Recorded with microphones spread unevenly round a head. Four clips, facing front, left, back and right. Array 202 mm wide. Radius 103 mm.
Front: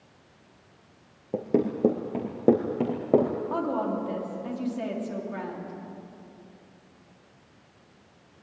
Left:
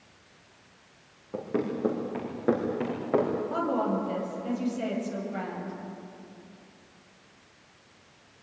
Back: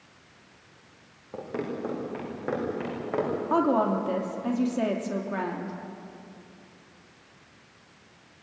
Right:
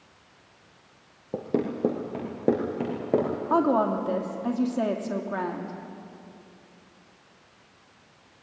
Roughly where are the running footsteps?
Ahead right.